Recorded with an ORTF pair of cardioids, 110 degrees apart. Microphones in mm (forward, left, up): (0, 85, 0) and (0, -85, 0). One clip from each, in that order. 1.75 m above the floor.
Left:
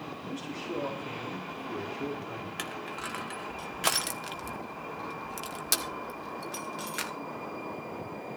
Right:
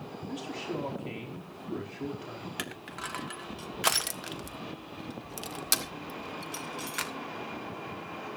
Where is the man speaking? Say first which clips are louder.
Right 2 dB; 15° right, 4.5 m.